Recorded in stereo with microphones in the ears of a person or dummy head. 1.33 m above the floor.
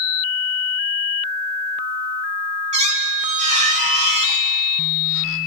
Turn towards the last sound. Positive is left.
turn(degrees=-45)  # may be behind; listen again after turning